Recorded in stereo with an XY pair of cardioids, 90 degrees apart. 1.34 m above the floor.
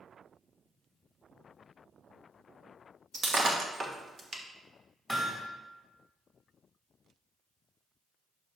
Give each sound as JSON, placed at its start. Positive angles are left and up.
{"t": 3.1, "sound": "breaking glass", "azimuth_deg": -40, "distance_m": 1.2}
{"t": 5.1, "sound": "hammering", "azimuth_deg": -10, "distance_m": 1.9}